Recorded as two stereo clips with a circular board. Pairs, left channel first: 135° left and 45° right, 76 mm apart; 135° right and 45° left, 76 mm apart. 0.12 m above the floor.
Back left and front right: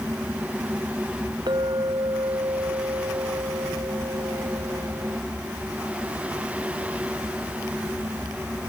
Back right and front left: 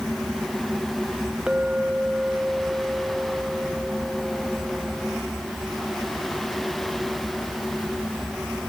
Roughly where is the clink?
Ahead right.